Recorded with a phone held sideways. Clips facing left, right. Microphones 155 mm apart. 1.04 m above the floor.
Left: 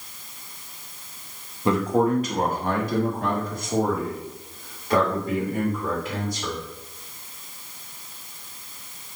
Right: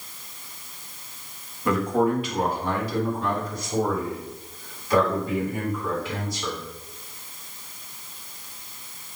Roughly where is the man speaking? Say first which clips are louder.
Left 1 dB; left.